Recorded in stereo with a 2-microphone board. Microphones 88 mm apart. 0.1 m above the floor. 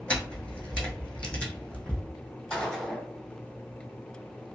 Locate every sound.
0.1 s a camera shutter: 15° left (ahead or behind), 1.0 m
2.5 s a gunshot: 10° left (ahead or behind), 1.7 m